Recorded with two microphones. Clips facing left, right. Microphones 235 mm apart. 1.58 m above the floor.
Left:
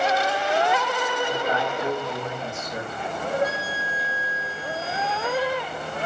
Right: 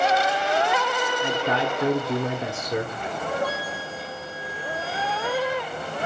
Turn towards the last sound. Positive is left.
turn(degrees=25)  # may be behind; listen again after turning